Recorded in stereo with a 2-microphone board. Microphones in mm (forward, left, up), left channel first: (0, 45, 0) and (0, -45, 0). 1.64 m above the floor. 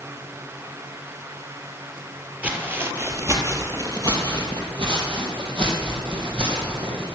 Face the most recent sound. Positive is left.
turn(degrees=-70)  # may be behind; listen again after turning